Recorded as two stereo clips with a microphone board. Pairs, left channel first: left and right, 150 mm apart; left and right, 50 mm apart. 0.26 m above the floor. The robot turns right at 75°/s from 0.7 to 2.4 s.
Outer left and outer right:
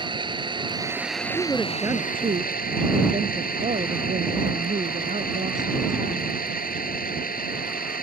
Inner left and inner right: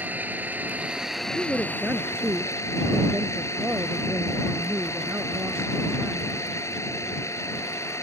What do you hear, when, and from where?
0.0 s an engine running: 35° right; by 8.0 s 95° left
1.3 s a woman speaking: 165° left; by 6.4 s 120° right